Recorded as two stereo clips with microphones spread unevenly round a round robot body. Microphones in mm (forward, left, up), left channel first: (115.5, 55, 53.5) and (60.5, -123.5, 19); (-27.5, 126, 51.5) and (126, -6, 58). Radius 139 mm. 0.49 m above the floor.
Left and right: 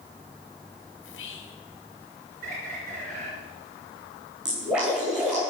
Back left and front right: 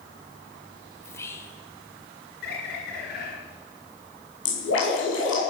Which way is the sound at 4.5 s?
170° left.